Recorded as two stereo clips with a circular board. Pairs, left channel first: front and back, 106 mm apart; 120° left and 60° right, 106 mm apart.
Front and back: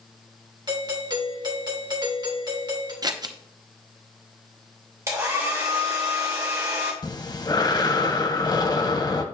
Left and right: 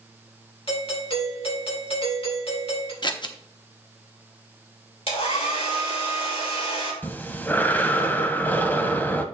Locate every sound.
0.7 s a doorbell: 140° left, 2.5 m
3.0 s scissors: 145° left, 0.8 m
5.1 s a hair dryer: 120° left, 3 m
7.0 s breathing: 45° left, 0.9 m